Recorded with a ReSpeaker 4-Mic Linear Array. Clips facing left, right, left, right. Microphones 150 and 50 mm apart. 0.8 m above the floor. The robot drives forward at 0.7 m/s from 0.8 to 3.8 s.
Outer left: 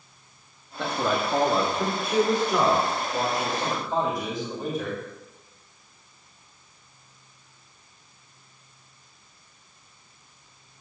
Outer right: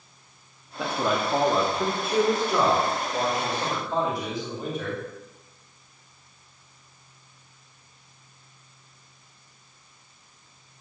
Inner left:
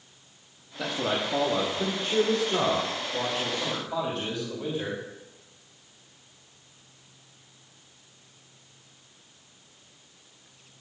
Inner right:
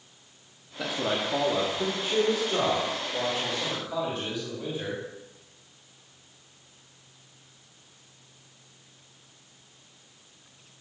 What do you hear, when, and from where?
0.8 s a man speaking: 5° right (ahead or behind), 0.8 m; by 5.0 s centre (ahead or behind), 3 m